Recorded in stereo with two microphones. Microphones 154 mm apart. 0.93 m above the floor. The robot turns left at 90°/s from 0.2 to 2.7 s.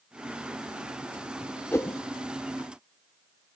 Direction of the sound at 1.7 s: 15° left (ahead or behind).